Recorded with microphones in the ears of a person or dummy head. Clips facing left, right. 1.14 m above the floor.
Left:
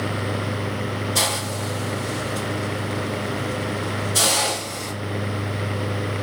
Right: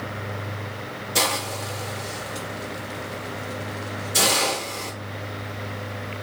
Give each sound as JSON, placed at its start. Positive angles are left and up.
{"t": 1.1, "sound": "a hiss", "side_deg": -25, "distance_m": 1.1}